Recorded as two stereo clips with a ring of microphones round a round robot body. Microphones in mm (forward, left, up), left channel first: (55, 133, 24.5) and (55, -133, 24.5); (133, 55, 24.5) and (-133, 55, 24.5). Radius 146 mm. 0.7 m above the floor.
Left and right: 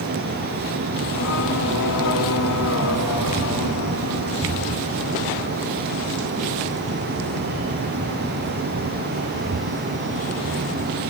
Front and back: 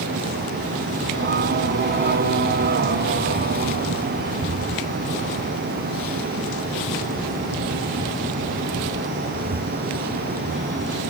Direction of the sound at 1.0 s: 135° left.